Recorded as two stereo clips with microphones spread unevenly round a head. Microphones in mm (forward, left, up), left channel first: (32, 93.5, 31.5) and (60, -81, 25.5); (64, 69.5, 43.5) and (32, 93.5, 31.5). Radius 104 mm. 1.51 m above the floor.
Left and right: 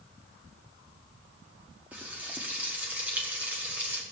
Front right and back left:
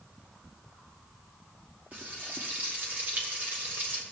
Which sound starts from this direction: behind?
Frying, at 1.9 s.